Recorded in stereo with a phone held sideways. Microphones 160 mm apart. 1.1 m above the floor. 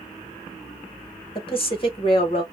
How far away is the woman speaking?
About 1.2 m.